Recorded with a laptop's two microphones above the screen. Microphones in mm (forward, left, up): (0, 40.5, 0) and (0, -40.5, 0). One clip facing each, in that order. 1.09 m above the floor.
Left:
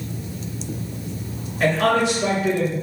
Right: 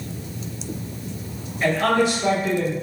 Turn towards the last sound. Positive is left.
turn(degrees=75)  # may be behind; listen again after turning